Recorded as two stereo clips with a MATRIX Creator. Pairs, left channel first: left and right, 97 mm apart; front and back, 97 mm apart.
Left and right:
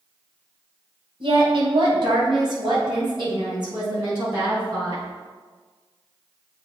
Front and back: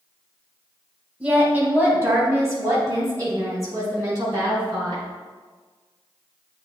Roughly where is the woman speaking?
Right.